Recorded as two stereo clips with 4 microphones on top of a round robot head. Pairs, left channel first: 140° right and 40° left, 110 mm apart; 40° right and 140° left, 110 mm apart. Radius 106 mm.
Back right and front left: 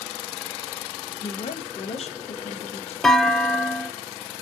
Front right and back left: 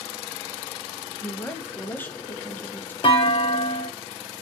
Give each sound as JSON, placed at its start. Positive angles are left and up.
{"t": 1.2, "sound": "a woman speaking", "azimuth_deg": -115, "distance_m": 0.6}
{"t": 3.0, "sound": "a clunk", "azimuth_deg": -55, "distance_m": 0.5}